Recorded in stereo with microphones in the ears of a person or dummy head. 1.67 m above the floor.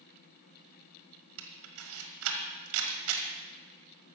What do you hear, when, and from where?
1.4 s a camera shutter: 80° right, 1.6 m